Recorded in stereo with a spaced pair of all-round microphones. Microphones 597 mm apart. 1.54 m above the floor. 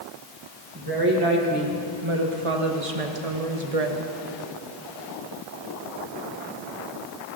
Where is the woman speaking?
35° right (ahead or behind), 1.9 m; by 4.0 s 80° right, 1.2 m.